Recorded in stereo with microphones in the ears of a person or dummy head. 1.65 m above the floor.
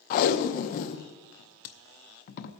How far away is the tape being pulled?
About 0.7 m.